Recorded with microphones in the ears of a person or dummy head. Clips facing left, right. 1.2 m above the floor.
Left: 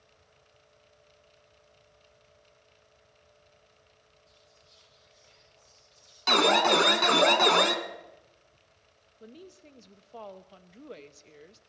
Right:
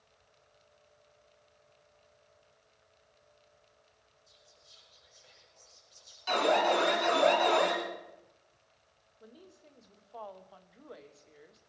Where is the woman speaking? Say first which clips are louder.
Left 6 dB; 30° left (ahead or behind), 0.6 m.